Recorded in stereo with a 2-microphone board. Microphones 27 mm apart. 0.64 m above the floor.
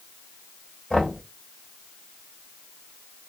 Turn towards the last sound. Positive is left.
turn(degrees=40)  # may be behind; listen again after turning